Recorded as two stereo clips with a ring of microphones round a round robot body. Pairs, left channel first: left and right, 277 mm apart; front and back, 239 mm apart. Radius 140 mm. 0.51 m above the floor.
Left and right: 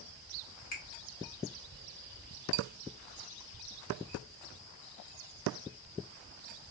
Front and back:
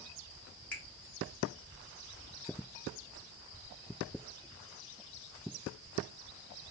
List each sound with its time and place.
0.7 s a finger snap: 85° left, 1.2 m